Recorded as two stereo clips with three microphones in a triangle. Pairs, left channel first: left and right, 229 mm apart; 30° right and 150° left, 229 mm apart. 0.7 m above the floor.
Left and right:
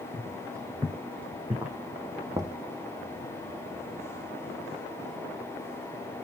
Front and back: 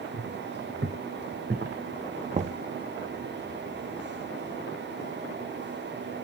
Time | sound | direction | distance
0.1 | footsteps | 165° right | 2.5 m
2.3 | knocking | 160° right | 0.5 m